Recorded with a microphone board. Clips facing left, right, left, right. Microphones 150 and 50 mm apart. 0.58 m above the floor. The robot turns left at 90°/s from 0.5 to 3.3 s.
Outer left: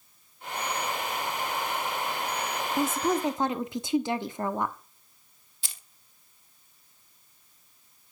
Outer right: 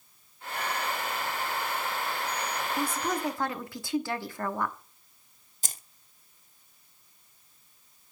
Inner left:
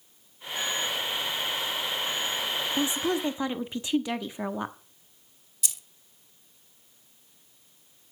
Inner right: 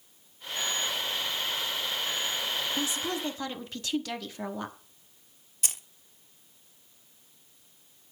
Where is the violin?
No violin in this recording.